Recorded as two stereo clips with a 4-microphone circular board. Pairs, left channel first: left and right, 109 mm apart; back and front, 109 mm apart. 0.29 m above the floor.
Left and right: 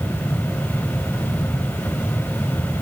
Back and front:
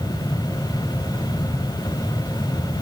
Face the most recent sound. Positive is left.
No sound to turn to.